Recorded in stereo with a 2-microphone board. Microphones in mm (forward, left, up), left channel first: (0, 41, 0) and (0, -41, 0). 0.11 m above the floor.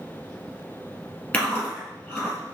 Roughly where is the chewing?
Centre.